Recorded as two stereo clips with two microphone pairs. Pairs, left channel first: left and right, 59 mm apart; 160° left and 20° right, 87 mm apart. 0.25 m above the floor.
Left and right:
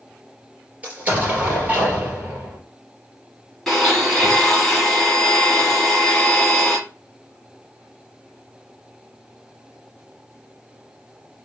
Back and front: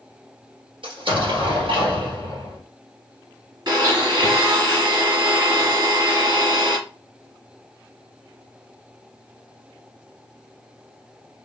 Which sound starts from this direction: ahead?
A blender, at 3.7 s.